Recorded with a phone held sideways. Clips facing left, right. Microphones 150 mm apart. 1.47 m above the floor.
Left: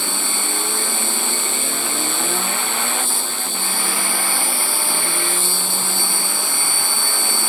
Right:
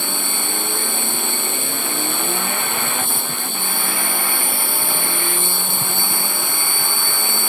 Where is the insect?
55° right (ahead or behind).